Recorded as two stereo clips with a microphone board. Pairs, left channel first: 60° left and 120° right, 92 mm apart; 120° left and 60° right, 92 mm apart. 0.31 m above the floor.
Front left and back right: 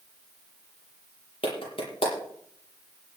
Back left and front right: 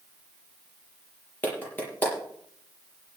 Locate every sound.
1.4 s a clap: 50° left, 7.5 m